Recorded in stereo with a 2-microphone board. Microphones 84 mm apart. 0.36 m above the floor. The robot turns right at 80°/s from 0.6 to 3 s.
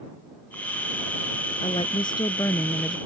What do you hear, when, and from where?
1.6 s a woman speaking: 75° left; by 3.0 s 175° right